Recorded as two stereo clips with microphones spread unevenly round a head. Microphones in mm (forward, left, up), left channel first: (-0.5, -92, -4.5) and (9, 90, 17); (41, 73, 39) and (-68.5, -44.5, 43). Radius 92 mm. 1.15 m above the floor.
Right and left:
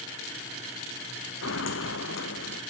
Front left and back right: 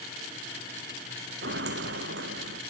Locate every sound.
1.4 s footsteps: 110° right; by 2.6 s 115° right